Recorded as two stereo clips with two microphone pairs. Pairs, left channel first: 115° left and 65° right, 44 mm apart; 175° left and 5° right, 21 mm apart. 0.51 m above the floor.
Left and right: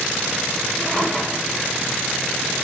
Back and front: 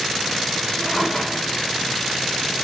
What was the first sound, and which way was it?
A drawer, 160° right.